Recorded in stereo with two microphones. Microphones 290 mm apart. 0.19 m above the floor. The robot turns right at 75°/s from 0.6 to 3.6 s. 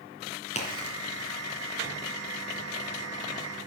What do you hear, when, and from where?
0.6 s a crack: 25° left (ahead or behind), 2.5 m; by 1.0 s 45° left (ahead or behind), 2.5 m